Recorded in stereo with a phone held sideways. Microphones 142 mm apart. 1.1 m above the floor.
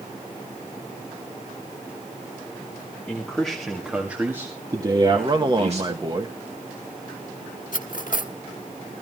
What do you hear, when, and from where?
3.1 s a man speaking: 10° left (ahead or behind), 2.5 m; by 6.0 s 55° right (ahead or behind), 2 m
5.0 s a man speaking: 30° right (ahead or behind), 1.6 m
7.7 s cutlery clinking: 70° left (ahead or behind), 1.4 m